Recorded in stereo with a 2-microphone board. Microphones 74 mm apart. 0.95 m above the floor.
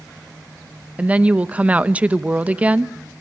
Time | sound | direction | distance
1.0 | a woman speaking | 15° right (ahead or behind) | 0.8 m